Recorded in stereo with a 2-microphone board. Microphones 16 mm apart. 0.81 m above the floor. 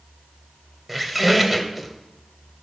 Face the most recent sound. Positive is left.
turn(degrees=-10)  # may be behind; listen again after turning